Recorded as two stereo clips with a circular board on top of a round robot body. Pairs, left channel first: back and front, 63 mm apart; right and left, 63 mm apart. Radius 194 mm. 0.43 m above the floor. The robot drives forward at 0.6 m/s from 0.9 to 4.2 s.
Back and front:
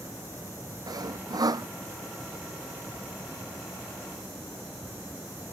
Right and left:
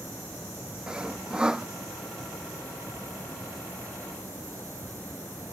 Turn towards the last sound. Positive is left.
turn(degrees=15)